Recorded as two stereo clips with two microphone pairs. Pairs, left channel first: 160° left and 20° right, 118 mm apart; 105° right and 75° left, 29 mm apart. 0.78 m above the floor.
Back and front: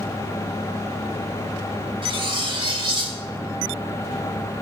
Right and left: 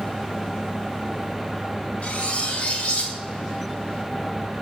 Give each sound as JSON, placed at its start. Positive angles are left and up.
{"t": 2.0, "sound": "cutlery clinking", "azimuth_deg": -65, "distance_m": 2.5}